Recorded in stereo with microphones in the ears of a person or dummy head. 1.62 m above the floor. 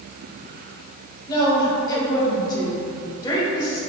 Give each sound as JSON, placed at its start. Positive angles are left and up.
{"t": 1.3, "sound": "a woman speaking", "side_deg": 20, "distance_m": 1.3}